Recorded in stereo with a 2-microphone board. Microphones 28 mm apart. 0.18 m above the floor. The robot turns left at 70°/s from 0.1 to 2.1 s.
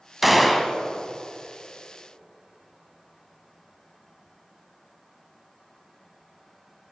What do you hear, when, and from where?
0.2 s a gunshot: 5° right (ahead or behind), 0.5 m; by 0.7 s 5° left (ahead or behind), 0.5 m